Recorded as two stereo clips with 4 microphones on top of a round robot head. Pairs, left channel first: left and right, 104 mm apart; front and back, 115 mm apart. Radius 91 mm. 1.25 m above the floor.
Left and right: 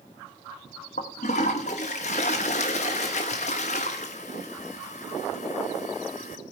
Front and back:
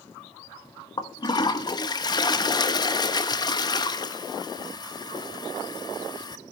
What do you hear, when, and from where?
1.0 s a toilet flushing: 50° left, 1.0 m